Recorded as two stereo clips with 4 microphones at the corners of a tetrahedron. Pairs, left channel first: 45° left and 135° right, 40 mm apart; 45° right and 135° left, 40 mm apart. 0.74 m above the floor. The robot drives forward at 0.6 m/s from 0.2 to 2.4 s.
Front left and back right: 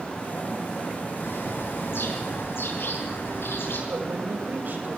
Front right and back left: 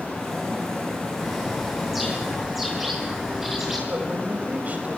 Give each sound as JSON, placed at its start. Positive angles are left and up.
{"t": 1.1, "sound": "a bird", "azimuth_deg": 45, "distance_m": 8.0}
{"t": 3.9, "sound": "a woman speaking", "azimuth_deg": -175, "distance_m": 4.0}